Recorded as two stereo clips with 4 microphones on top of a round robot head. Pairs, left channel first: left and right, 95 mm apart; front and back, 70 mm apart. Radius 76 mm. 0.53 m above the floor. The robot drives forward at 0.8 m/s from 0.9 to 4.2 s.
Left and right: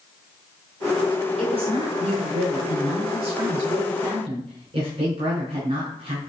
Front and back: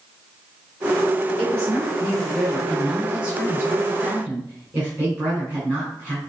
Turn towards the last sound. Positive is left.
turn(degrees=-115)